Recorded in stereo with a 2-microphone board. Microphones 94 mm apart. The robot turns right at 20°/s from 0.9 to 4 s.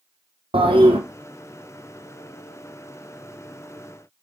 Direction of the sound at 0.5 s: 75° right (ahead or behind).